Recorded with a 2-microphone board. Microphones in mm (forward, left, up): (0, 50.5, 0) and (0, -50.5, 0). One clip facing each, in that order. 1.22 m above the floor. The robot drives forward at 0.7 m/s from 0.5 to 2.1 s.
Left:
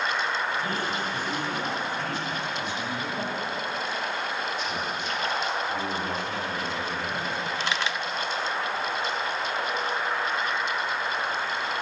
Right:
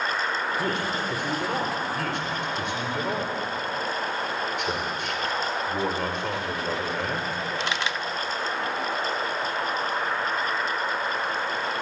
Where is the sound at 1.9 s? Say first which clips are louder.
Right 2 dB; 70° right (ahead or behind), 4.5 m.